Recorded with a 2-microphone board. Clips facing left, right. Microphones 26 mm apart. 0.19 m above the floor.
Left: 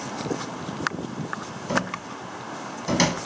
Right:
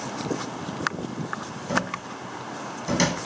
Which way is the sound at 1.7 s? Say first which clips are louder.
Even; 20° left (ahead or behind).